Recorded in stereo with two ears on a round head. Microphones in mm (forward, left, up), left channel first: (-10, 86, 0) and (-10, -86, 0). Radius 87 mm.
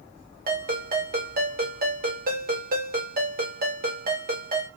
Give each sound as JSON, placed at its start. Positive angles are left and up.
{"t": 0.5, "sound": "a ringtone", "side_deg": -50, "distance_m": 1.7}